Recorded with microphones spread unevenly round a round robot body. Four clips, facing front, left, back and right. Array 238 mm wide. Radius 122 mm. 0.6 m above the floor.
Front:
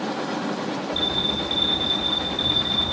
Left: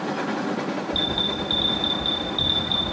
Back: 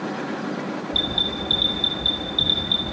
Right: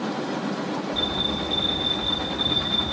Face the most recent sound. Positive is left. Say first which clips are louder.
# left 1 dB, front 1 dB
turn(degrees=130)